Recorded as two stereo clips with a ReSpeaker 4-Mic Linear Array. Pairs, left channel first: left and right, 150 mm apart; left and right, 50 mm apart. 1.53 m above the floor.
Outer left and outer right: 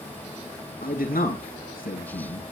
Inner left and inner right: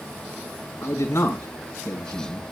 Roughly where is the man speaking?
Left.